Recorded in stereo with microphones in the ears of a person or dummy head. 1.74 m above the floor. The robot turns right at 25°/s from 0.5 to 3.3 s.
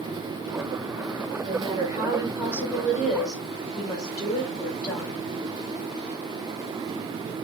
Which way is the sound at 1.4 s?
25° right.